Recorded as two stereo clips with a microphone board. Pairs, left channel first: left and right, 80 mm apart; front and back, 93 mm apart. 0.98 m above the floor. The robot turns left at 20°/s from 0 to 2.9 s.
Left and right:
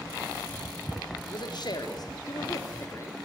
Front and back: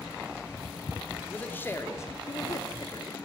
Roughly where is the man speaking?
Left.